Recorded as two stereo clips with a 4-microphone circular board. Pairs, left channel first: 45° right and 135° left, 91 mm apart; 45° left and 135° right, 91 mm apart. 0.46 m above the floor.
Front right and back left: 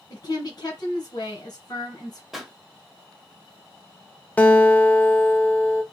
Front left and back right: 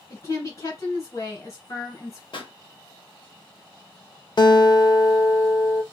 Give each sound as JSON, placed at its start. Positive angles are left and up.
{"t": 0.1, "sound": "a woman speaking", "azimuth_deg": -5, "distance_m": 2.5}
{"t": 2.3, "sound": "a pop", "azimuth_deg": 50, "distance_m": 1.2}
{"t": 4.4, "sound": "a guitar", "azimuth_deg": 30, "distance_m": 0.7}